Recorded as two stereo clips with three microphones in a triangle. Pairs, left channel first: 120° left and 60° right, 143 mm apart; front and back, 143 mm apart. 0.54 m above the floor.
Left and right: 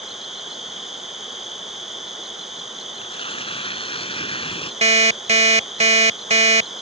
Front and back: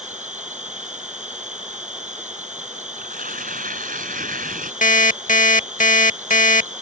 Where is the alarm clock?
20° right.